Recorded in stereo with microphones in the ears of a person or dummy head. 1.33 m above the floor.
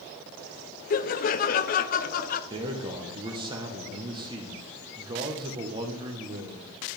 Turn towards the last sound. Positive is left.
turn(degrees=-30)  # may be behind; listen again after turning